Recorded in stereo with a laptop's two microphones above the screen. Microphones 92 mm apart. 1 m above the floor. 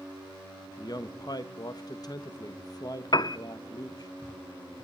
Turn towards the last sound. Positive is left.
turn(degrees=50)  # may be behind; listen again after turning